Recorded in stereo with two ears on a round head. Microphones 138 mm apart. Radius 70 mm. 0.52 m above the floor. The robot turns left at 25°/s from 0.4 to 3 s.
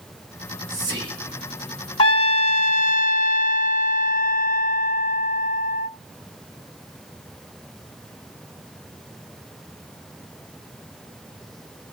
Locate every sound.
0.4 s whispering: 15° right (ahead or behind), 7 m; by 1.6 s 45° right (ahead or behind), 7 m
2.0 s a trumpet: 35° left (ahead or behind), 0.8 m; by 5.9 s 55° left (ahead or behind), 0.8 m